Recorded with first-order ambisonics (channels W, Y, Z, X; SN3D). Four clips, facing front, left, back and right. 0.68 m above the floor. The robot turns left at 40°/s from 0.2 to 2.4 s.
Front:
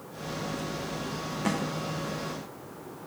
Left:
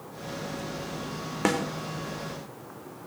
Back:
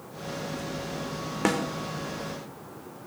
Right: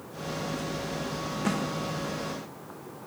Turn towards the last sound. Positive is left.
turn(degrees=95)